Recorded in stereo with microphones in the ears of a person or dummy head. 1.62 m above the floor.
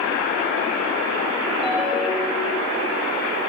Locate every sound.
1.6 s a ringtone: centre (ahead or behind), 0.7 m